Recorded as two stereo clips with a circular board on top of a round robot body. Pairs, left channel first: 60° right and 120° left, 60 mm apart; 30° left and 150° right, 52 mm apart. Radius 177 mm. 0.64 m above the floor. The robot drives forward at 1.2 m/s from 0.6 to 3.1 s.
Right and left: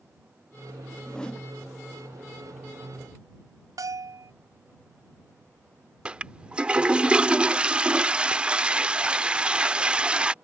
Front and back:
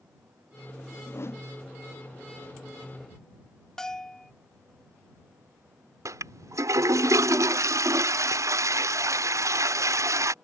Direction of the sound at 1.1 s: 10° left.